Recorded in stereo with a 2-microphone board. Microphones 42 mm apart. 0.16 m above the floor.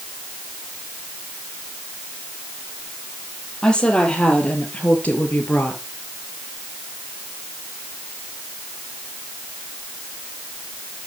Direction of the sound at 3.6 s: 20° left (ahead or behind).